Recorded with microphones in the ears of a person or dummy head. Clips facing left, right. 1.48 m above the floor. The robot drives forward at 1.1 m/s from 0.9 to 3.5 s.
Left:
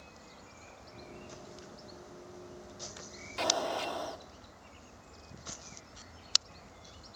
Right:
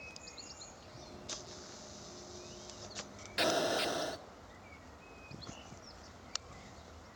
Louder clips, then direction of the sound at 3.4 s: Right 1 dB; 20° right (ahead or behind).